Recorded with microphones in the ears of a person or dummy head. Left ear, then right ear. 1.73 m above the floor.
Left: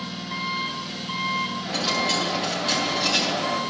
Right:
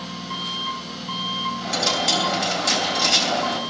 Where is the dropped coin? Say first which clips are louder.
Right 5 dB; 65° right (ahead or behind), 3 m.